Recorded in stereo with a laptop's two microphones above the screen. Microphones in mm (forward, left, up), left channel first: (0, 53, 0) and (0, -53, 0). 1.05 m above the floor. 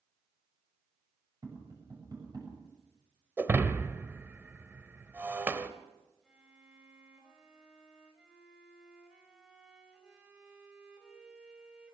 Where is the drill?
I don't hear a drill.